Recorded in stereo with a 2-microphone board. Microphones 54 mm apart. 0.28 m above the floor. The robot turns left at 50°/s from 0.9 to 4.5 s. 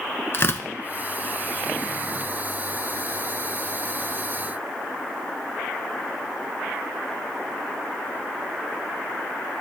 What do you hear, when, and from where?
0.3 s tearing paper: 50° left (ahead or behind), 0.8 m